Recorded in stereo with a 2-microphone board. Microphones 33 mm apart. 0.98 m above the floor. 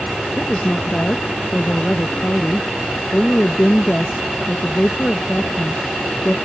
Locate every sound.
0.4 s a woman speaking: 30° left (ahead or behind)